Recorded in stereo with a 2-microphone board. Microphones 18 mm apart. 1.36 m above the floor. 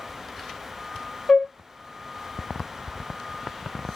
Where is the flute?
65° left (ahead or behind), 0.5 m.